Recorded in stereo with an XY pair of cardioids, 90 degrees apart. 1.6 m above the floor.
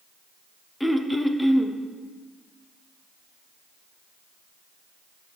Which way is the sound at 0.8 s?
5° left.